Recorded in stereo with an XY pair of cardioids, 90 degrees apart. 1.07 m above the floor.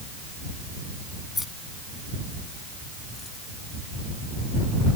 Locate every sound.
1.4 s keys jangling: 30° left